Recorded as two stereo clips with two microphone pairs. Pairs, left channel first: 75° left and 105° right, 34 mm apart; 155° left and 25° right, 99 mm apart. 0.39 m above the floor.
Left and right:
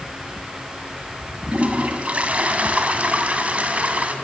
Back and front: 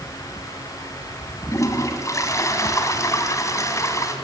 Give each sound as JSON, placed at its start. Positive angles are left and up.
{"t": 1.5, "sound": "a toilet flushing", "azimuth_deg": -150, "distance_m": 2.5}